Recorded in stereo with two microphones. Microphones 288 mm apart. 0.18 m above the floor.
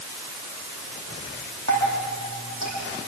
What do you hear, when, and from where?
1.7 s dripping: 75° right (ahead or behind), 9 m